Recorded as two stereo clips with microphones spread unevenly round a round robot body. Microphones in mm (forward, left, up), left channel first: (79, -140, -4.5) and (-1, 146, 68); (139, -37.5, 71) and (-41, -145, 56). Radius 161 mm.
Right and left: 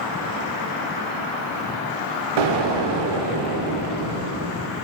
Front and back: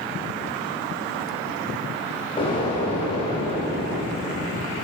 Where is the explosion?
105° left, 0.6 m.